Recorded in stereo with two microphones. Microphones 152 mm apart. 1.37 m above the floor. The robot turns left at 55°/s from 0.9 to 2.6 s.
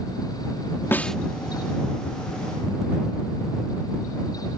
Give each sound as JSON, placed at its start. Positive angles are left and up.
{"t": 0.9, "sound": "a snare drum", "side_deg": 15}